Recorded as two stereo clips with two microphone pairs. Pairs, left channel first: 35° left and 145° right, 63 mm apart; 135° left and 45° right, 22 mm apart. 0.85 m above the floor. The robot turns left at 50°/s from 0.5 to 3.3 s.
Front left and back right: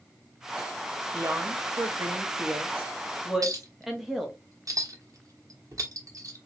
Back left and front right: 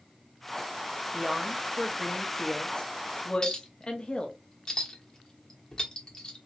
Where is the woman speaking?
120° right, 1.3 m; by 4.4 s 130° left, 1.3 m.